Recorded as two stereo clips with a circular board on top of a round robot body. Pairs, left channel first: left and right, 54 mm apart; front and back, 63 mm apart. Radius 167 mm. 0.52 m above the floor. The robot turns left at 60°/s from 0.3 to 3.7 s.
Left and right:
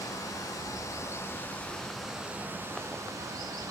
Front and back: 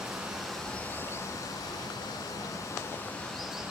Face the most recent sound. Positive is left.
turn(degrees=-105)